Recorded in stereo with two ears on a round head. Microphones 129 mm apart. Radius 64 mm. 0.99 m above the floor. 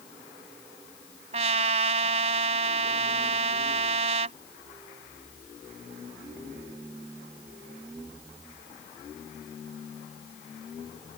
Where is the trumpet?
45° right (ahead or behind).